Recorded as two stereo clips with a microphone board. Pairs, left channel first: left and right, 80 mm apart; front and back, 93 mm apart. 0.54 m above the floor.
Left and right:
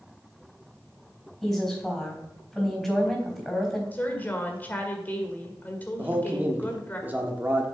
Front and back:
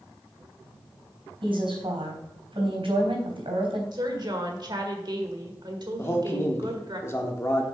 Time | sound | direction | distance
1.4 | a woman speaking | straight behind | 3.5 m
3.9 | a woman speaking | 155° left | 1.7 m
6.0 | a man speaking | 35° right | 1.2 m